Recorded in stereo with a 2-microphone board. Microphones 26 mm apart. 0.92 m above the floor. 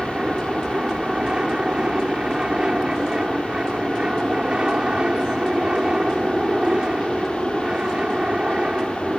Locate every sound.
0.0 s an aircraft: 30° right (ahead or behind)